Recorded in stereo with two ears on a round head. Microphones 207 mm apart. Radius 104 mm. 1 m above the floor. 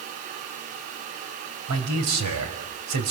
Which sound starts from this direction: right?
A man speaking, at 1.7 s.